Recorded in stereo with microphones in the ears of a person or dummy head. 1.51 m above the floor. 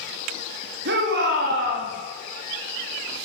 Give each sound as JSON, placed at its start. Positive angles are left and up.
{"t": 0.8, "sound": "a shout", "side_deg": -55, "distance_m": 3.0}